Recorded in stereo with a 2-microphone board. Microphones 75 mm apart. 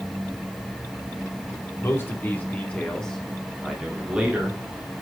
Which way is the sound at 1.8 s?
30° left (ahead or behind).